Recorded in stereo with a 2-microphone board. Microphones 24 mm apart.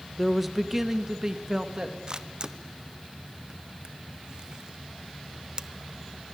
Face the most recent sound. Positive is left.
turn(degrees=-35)  # may be behind; listen again after turning